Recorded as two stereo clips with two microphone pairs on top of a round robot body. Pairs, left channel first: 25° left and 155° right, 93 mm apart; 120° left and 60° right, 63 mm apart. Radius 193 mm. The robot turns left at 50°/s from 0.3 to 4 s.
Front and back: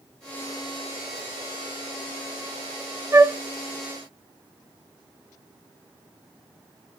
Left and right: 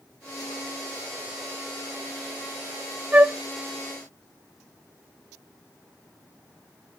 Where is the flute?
120° right, 0.7 m; by 3.4 s 135° right, 0.7 m.